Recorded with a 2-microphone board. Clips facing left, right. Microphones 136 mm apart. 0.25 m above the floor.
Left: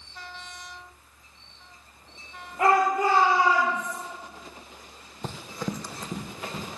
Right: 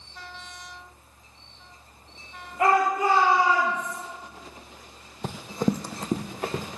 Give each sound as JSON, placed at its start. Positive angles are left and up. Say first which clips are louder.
{"t": 2.6, "sound": "a shout", "louder": "even", "side_deg": 35, "distance_m": 4.5}
{"t": 5.2, "sound": "running footsteps", "louder": "right 7 dB", "side_deg": -5, "distance_m": 0.6}